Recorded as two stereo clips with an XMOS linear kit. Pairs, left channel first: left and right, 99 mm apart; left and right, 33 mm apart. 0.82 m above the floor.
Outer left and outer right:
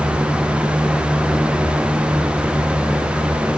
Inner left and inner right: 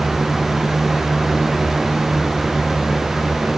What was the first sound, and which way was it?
Only background noise.